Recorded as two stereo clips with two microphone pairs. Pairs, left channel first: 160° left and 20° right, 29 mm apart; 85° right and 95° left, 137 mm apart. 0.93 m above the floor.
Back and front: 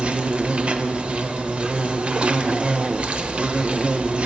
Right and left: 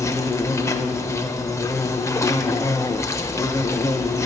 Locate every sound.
0.0 s an insect: 25° right, 0.7 m